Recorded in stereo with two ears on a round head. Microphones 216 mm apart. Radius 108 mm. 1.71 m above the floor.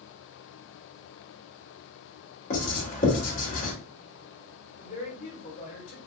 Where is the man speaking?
35° left (ahead or behind), 1.6 m.